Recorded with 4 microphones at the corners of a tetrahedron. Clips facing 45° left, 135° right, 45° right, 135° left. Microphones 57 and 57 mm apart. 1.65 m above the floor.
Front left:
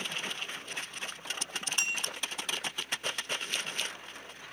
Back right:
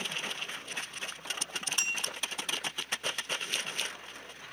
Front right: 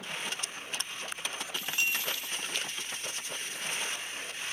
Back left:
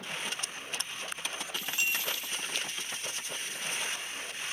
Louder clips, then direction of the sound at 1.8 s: Front left 1 dB, front right 1 dB; 20° right.